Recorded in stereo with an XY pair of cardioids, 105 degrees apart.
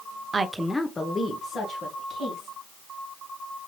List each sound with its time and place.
0.3 s a woman speaking: 30° right, 0.7 m; by 2.6 s 60° left, 3 m